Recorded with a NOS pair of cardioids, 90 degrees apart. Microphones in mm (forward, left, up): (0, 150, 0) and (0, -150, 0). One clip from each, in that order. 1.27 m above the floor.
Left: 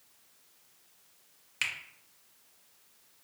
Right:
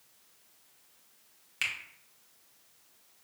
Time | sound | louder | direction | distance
1.6 | a finger snap | even | 5° left | 0.8 m